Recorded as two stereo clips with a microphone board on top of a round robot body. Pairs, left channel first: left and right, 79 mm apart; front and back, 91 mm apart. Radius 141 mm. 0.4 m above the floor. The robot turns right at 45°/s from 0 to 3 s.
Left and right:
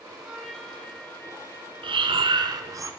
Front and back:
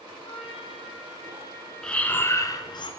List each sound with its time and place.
0.2 s a trumpet: 10° right, 2.0 m; by 2.8 s 105° left, 2.0 m
1.8 s breathing: 85° right, 0.8 m; by 2.9 s 35° right, 0.8 m